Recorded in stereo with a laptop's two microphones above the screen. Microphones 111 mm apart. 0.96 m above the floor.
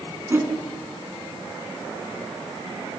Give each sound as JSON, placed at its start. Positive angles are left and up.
{"t": 0.3, "sound": "a whoosh", "side_deg": -20, "distance_m": 5.0}